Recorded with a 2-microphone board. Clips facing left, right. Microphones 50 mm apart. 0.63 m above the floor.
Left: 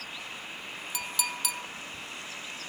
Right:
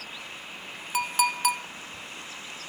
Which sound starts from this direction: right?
A clink, at 0.9 s.